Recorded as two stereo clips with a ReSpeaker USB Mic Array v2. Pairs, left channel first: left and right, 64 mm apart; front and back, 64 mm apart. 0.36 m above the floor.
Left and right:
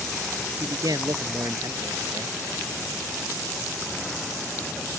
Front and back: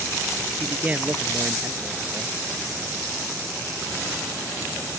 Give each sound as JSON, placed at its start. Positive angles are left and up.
{"t": 0.6, "sound": "a man speaking", "azimuth_deg": -110}